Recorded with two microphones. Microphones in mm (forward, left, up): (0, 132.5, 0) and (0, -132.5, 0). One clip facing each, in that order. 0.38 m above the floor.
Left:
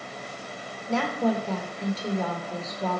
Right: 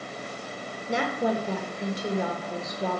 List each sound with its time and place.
0.9 s a woman speaking: 15° right (ahead or behind), 1.1 m